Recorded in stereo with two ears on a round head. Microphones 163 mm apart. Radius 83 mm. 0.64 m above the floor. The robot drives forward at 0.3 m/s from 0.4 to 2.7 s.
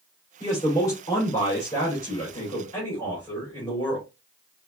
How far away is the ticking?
I don't hear ticking.